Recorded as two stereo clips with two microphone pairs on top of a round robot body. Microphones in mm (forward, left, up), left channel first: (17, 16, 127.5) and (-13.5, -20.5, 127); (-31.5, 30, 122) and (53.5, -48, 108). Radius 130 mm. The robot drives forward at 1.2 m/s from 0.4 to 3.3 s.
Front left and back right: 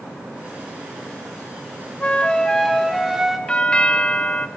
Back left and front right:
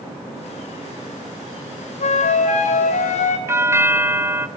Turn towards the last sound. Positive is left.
turn(degrees=-10)